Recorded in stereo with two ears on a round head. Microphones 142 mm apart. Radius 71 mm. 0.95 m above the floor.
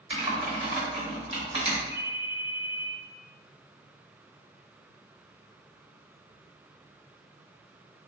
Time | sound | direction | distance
0.1 | typing on a keyboard | 35° right (ahead or behind) | 1.1 m
1.9 | a ringtone | 75° right (ahead or behind) | 1.0 m